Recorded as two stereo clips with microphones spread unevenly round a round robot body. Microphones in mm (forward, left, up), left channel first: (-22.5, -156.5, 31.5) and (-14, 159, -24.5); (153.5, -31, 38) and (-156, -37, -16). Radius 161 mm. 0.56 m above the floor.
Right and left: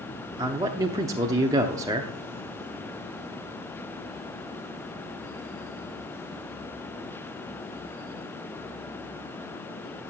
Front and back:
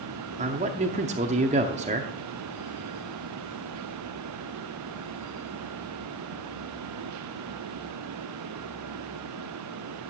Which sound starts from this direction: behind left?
A man speaking, at 0.4 s.